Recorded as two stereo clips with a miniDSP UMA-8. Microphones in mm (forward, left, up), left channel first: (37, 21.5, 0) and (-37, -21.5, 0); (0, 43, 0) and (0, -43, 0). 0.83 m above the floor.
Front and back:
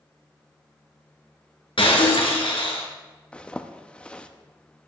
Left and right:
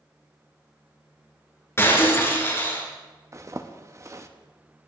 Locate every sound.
1.8 s breaking glass: 30° left, 3.5 m
3.3 s a zipper: 45° right, 0.9 m